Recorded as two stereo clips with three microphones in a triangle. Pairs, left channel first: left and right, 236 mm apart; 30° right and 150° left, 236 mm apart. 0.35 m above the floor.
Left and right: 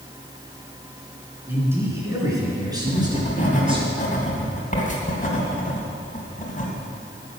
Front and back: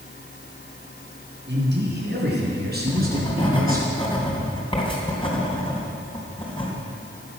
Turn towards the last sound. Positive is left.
turn(degrees=35)